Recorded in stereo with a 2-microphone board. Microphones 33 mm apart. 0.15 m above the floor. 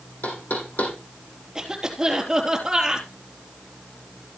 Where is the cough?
15° right (ahead or behind), 3.5 m.